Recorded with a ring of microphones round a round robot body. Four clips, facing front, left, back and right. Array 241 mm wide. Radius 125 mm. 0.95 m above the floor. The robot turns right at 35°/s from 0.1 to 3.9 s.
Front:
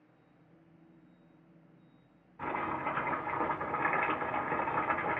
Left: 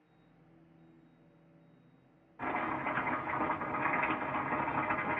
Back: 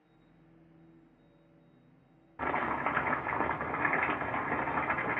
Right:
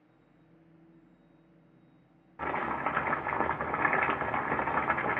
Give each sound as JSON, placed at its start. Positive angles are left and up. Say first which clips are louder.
{"t": 2.4, "sound": "chopping", "louder": "right 3 dB, back 3 dB", "azimuth_deg": -150, "distance_m": 0.7}